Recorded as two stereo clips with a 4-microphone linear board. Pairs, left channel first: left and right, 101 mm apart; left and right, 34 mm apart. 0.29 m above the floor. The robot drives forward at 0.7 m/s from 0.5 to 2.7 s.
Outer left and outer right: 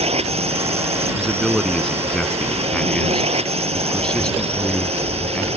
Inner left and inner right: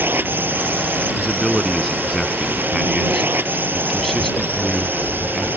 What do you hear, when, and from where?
0.0 s a drone: 80° right
1.2 s a man speaking: 5° left (ahead or behind); by 5.5 s 10° left (ahead or behind)